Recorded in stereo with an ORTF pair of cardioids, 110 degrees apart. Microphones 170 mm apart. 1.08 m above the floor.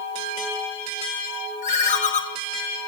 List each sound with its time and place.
1.6 s a ringtone: 45° left, 1.3 m